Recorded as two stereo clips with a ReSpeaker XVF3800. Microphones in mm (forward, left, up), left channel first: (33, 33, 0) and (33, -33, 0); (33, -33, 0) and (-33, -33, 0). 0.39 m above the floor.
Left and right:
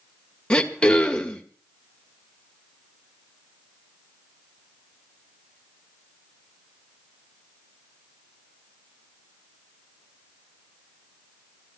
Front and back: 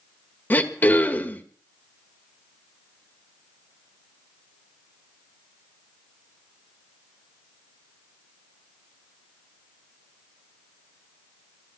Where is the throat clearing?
30° left, 1.6 m.